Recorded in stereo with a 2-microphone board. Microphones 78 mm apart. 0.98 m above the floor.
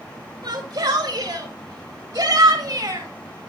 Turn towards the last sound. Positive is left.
turn(degrees=-50)  # may be behind; listen again after turning